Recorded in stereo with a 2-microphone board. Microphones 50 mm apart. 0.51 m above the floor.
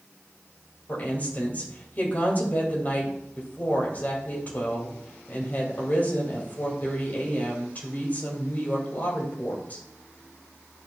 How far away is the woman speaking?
About 3 m.